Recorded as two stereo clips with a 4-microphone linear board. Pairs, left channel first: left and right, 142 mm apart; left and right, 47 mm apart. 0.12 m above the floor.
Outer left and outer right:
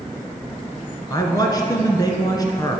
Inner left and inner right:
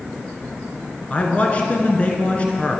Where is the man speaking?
30° left (ahead or behind), 1.2 m.